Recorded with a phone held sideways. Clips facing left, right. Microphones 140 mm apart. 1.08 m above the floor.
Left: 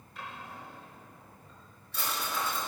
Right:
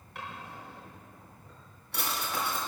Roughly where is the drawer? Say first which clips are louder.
Right 1 dB; right.